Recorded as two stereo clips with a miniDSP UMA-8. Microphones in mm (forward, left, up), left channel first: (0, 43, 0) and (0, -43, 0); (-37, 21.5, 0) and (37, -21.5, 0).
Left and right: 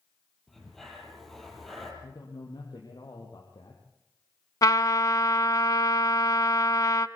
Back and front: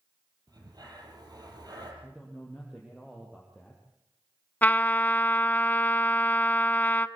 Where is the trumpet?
90° left, 0.7 m.